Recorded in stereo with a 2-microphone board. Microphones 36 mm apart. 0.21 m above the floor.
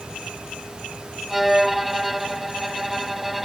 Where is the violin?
5° right (ahead or behind).